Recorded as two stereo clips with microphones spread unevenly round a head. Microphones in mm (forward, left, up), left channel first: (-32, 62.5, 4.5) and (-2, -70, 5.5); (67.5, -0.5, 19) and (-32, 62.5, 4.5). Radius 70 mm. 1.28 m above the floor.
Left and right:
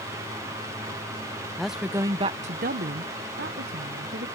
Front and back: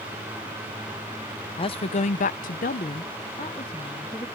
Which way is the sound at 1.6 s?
15° left.